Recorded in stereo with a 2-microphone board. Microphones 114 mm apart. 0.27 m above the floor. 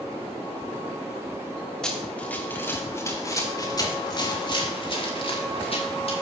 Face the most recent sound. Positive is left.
turn(degrees=60)  # may be behind; listen again after turning